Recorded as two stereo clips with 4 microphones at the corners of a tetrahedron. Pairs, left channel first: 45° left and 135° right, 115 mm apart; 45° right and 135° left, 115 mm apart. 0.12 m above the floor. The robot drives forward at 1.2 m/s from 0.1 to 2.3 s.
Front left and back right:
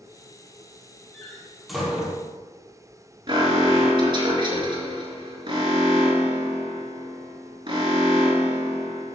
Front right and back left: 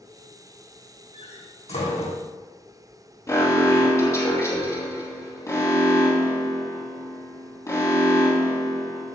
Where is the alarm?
100° right, 3 m.